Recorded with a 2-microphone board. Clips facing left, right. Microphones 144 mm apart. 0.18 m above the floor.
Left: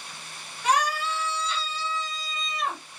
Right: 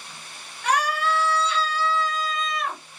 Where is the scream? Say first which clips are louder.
Right 2 dB; 60° right (ahead or behind), 3 m.